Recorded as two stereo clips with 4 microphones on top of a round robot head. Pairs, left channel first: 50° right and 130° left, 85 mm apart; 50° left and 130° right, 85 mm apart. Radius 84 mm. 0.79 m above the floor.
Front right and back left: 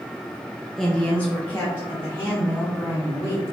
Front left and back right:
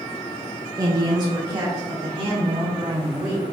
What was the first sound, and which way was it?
A woman speaking, 130° right.